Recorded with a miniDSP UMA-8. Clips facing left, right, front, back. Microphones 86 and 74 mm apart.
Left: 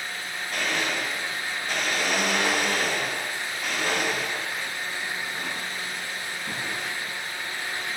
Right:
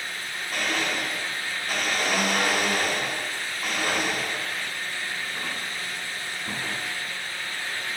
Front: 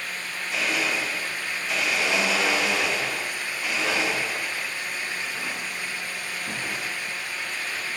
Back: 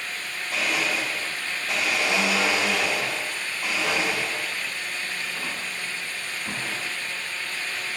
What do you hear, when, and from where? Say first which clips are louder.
0.5 s a blender: even, even; 170° right, 1.6 m